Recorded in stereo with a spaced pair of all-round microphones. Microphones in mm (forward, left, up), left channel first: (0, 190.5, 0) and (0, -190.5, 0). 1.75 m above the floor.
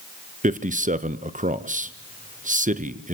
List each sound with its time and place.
0.4 s a man speaking: 20° right (ahead or behind), 1.1 m